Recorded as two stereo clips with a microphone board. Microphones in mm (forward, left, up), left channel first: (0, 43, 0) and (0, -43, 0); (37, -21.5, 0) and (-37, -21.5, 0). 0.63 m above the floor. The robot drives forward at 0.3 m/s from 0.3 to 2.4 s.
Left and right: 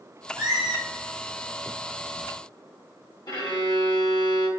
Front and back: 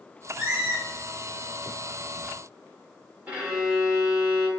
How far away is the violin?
About 1.0 m.